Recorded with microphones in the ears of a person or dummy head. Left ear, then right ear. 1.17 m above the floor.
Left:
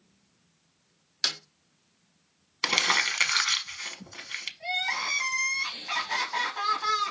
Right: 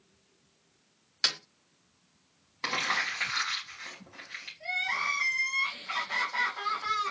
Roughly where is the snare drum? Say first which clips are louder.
Even; centre.